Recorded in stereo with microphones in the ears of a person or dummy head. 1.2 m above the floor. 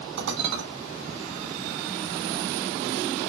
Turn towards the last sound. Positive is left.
turn(degrees=-55)  # may be behind; listen again after turning